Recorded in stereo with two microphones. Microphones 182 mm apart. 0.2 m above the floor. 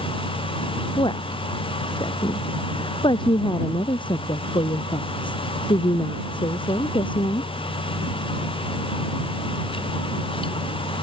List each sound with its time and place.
1.0 s a woman speaking: 30° left (ahead or behind)